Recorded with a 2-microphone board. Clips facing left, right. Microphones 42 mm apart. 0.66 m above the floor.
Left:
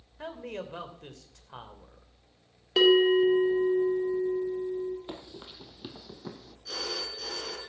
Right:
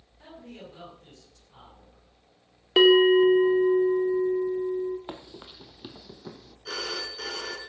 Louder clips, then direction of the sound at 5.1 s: Right 1 dB; 25° right (ahead or behind).